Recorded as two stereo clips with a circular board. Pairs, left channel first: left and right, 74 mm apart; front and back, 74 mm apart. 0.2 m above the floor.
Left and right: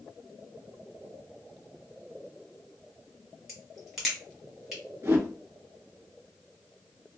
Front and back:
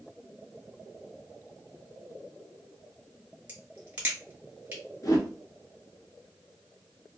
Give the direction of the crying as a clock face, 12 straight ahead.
No crying in this recording.